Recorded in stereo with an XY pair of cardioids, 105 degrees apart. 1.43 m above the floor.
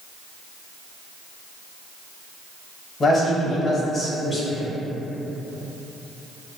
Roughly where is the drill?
I don't hear a drill.